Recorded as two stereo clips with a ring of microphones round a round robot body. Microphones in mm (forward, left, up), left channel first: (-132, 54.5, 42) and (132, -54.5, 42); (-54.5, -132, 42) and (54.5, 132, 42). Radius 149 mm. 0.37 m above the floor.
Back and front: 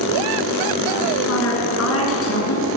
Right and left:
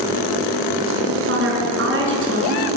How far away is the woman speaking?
About 6 m.